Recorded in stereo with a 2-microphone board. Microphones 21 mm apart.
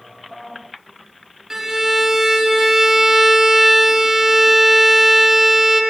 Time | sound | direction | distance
1.5 | a violin | 25° right (ahead or behind) | 1.1 m